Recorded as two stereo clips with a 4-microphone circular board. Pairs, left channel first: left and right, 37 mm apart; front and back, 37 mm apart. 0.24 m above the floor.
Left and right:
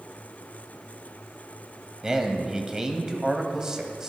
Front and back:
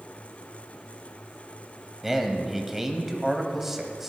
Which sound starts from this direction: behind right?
A man speaking, at 2.0 s.